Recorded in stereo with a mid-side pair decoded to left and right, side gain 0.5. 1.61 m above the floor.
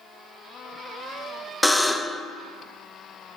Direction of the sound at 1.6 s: 5° left.